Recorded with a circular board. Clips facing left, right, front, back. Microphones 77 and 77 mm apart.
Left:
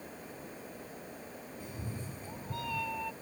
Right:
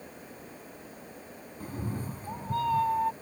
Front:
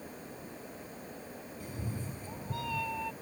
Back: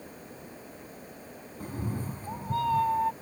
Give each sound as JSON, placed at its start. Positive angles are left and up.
{"t": 1.6, "sound": "a cat meowing", "azimuth_deg": -135}